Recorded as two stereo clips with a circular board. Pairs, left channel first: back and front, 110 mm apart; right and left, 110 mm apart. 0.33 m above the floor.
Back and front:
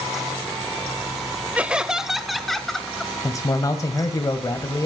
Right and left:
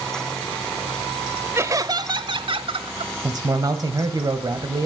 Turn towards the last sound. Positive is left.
turn(degrees=130)